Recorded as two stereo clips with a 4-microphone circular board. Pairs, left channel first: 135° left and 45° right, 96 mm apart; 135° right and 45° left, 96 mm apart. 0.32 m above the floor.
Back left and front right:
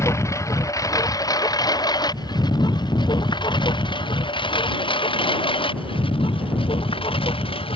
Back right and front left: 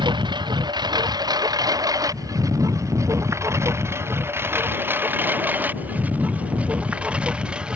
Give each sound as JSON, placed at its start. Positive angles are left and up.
{"t": 0.0, "sound": "a lawn mower", "azimuth_deg": 75}